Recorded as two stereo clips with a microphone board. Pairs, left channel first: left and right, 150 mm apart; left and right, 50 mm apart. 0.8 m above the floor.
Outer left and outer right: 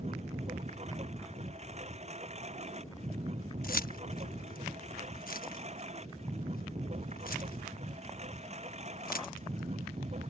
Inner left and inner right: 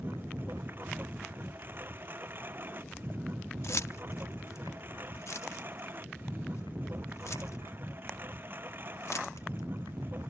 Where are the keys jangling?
65° left (ahead or behind).